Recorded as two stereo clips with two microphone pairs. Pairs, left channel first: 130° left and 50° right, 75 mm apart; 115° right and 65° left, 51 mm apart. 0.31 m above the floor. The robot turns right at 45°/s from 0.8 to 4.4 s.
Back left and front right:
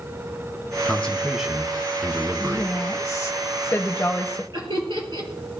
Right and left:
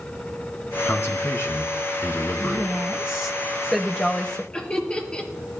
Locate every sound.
0.8 s a man speaking: 160° right, 2.5 m; by 2.7 s 75° right, 2.5 m
2.4 s a woman speaking: 100° left, 1.0 m; by 4.4 s 170° right, 1.0 m
4.5 s laughter: 45° right, 5 m